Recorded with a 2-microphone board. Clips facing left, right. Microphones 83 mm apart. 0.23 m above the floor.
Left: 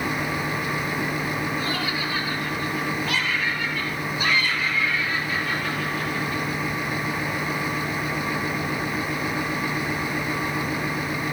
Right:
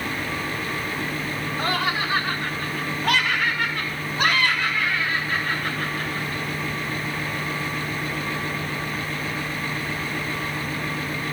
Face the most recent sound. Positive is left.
turn(degrees=-40)  # may be behind; listen again after turning